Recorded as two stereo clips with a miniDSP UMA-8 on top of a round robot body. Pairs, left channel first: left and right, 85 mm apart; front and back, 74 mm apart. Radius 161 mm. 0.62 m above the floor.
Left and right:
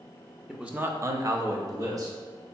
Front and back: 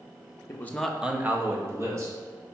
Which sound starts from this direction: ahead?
A man speaking, at 0.5 s.